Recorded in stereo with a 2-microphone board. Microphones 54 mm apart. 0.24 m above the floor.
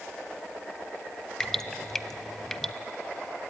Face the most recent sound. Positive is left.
turn(degrees=5)  # may be behind; listen again after turning